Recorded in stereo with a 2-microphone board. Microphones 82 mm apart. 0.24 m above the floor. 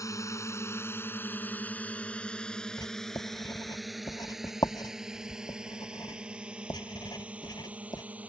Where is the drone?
45° left (ahead or behind); by 8.3 s 15° right (ahead or behind).